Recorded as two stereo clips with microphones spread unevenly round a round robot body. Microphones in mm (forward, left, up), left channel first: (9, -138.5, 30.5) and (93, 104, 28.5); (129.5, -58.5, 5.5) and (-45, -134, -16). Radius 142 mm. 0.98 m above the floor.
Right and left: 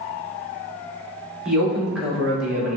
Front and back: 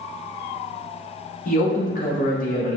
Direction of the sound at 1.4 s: 15° right.